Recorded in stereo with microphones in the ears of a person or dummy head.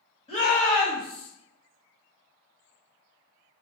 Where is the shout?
25° left (ahead or behind), 1.5 m; by 1.3 s 5° right (ahead or behind), 0.9 m.